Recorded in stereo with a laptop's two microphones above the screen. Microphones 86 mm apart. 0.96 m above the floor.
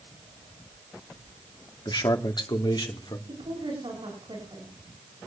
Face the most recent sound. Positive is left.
turn(degrees=-75)  # may be behind; listen again after turning